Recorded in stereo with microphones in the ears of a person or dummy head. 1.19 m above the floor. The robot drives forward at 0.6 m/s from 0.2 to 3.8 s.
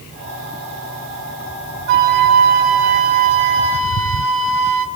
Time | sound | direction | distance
1.9 | a flute | 50° right (ahead or behind) | 2.5 m